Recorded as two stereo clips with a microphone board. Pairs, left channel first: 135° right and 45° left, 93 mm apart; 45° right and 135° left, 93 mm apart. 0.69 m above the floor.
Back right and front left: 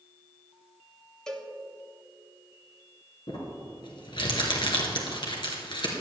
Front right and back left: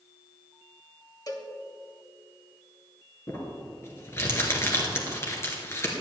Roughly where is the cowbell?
Ahead right.